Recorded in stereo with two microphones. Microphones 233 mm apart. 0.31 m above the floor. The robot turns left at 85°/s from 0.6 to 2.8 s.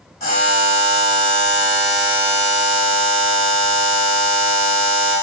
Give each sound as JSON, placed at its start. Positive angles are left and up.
{"t": 0.2, "sound": "a buzzer", "azimuth_deg": 115, "distance_m": 1.4}